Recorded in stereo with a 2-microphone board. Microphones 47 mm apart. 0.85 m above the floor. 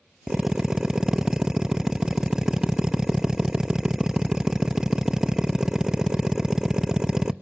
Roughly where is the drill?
Centre.